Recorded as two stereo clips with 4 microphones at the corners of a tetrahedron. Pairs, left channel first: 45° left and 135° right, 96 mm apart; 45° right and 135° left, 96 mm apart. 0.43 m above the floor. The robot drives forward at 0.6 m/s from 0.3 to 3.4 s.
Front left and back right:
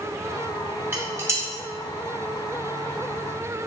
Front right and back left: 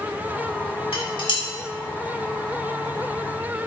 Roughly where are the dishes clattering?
Right.